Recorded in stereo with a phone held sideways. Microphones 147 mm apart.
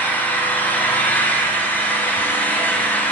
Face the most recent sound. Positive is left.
turn(degrees=15)  # may be behind; listen again after turning